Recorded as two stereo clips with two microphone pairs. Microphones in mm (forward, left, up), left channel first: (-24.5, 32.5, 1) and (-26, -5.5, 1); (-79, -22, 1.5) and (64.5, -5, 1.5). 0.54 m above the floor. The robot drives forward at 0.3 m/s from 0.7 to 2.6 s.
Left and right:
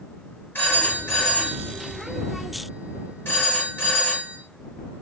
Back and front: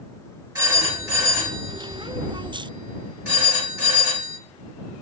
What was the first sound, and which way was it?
A phone ringing, 65° left.